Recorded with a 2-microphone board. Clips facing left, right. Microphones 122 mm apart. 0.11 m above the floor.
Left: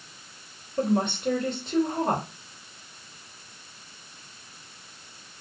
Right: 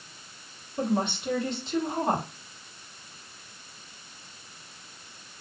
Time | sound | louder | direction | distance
0.8 | a woman speaking | left 3 dB | 50° left (ahead or behind) | 2.5 m